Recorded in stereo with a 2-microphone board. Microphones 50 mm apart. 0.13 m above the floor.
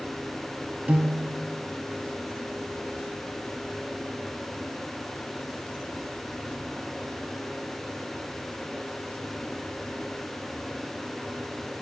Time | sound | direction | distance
0.9 | a piano | 30° right (ahead or behind) | 0.5 m